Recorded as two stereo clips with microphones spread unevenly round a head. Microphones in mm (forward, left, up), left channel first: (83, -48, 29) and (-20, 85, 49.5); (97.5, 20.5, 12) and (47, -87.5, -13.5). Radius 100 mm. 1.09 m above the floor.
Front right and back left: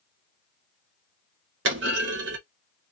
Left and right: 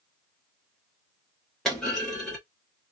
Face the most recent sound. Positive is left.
turn(degrees=145)